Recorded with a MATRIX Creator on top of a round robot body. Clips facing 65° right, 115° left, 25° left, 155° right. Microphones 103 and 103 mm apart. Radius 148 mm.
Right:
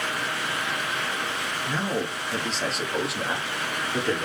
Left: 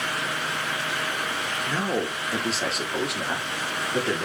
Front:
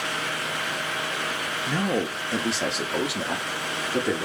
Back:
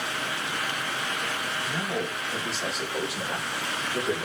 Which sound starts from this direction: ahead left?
A man speaking, at 1.7 s.